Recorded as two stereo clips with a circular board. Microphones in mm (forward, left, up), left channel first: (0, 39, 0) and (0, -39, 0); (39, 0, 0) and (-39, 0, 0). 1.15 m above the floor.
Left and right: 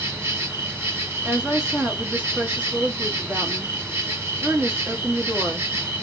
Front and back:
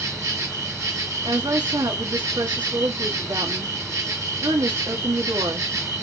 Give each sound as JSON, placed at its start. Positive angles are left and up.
{"t": 0.0, "sound": "an insect", "azimuth_deg": -145, "distance_m": 1.7}
{"t": 1.2, "sound": "a woman speaking", "azimuth_deg": -165, "distance_m": 2.0}